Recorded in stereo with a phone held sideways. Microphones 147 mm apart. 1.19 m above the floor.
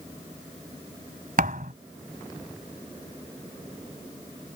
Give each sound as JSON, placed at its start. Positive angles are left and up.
{"t": 1.4, "sound": "a thud", "side_deg": -70}